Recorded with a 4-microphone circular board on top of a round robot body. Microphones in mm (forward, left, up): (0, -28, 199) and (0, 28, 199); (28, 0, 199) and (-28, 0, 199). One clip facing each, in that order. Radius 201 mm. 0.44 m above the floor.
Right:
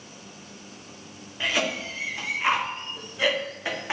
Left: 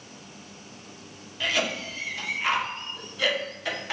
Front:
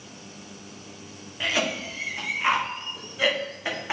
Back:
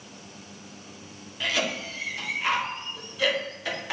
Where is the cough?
40° right, 1.6 m.